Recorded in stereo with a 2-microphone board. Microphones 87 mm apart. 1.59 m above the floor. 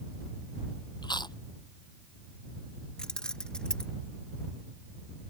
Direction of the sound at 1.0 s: 55° left (ahead or behind).